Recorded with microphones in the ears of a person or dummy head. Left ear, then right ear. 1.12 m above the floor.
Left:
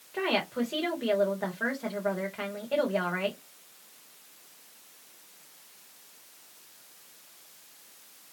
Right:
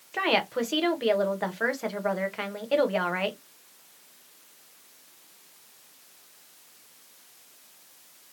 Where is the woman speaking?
80° right, 0.8 m.